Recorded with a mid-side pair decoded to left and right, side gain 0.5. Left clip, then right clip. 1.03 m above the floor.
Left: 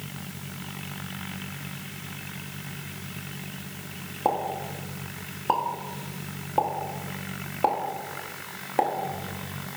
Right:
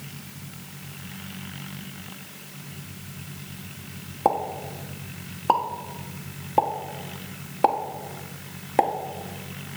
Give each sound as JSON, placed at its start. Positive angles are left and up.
{"t": 4.2, "sound": "a pop", "azimuth_deg": -30, "distance_m": 1.2}